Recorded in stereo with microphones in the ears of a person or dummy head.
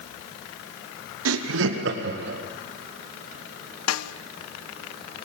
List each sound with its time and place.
1.2 s laughter: 80° right, 0.8 m; by 2.4 s 65° right (ahead or behind), 2.5 m
3.9 s a snare drum: 85° left, 1.0 m